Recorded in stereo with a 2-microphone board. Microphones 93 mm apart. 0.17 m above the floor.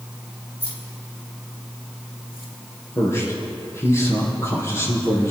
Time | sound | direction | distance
0.6 | keys jangling | 80° left | 5.5 m
3.0 | a man speaking | 30° left (ahead or behind) | 5.5 m